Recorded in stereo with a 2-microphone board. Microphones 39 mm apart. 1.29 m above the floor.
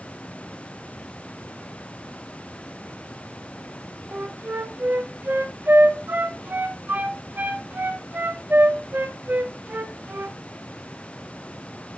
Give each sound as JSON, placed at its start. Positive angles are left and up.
{"t": 4.1, "sound": "a flute", "side_deg": -55, "distance_m": 1.0}